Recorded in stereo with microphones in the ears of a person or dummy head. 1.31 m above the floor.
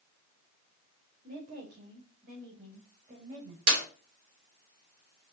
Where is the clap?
85° right, 4.5 m.